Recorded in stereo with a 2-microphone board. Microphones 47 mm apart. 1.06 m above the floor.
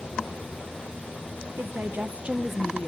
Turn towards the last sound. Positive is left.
turn(degrees=25)  # may be behind; listen again after turning